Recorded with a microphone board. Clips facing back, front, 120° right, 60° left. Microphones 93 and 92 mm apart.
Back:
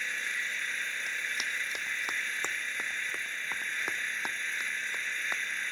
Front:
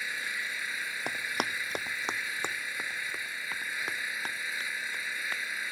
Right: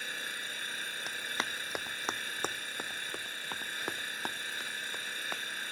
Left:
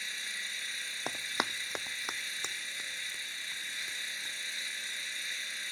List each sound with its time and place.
0.0 s an engine running: 80° right
1.1 s running footsteps: 10° left; by 5.4 s 105° right